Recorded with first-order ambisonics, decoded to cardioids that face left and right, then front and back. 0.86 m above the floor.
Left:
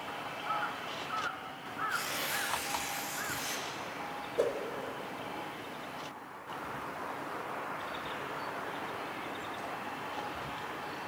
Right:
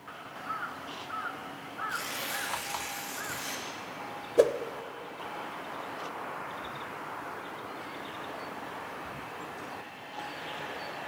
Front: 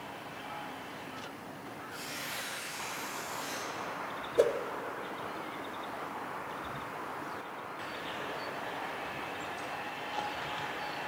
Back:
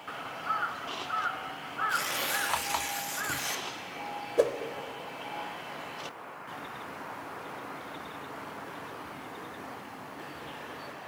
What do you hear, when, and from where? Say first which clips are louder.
1.9 s tearing paper: even, back 8 dB; 175° right, 1.5 m
4.4 s a whoosh: right 8 dB, back 1 dB; 100° right, 0.7 m